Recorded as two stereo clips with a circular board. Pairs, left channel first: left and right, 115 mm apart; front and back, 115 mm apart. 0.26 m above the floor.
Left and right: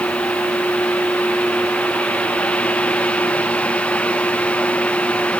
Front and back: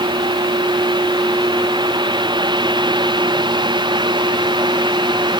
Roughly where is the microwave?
No microwave in this recording.